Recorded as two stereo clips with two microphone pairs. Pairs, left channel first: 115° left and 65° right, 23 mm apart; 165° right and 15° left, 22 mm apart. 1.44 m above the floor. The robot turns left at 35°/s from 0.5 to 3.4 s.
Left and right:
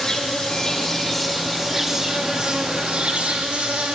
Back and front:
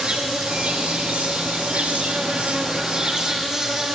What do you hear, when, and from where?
0.0 s an insect: 45° left, 0.8 m; by 4.0 s 55° right, 0.8 m